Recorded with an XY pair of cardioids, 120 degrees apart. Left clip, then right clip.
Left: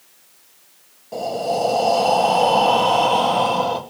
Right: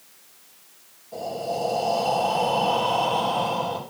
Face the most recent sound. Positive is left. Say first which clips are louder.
# left 6 dB
turn(degrees=50)